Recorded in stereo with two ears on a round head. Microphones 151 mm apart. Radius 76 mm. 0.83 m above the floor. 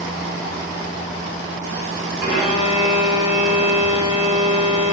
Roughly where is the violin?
Centre.